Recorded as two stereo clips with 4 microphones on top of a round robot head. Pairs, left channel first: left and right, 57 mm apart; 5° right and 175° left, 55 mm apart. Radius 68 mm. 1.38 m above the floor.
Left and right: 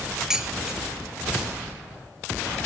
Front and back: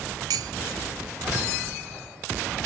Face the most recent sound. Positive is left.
turn(degrees=-170)